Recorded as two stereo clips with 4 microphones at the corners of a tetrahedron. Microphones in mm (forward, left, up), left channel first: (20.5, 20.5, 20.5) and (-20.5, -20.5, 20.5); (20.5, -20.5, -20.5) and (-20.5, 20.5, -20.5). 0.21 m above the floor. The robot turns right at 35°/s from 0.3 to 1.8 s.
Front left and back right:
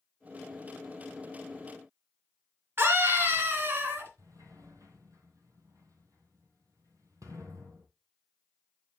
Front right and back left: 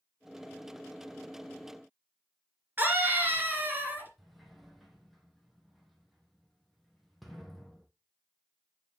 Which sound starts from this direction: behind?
A scream, at 2.8 s.